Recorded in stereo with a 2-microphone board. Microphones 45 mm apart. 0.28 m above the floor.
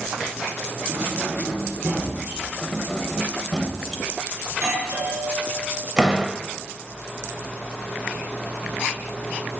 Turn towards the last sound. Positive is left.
turn(degrees=-15)  # may be behind; listen again after turning